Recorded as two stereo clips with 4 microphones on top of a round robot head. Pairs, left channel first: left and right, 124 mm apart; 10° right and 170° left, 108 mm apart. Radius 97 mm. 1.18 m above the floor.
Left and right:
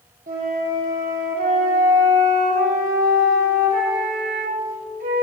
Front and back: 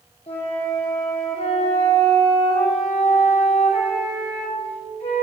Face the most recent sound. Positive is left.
turn(degrees=-60)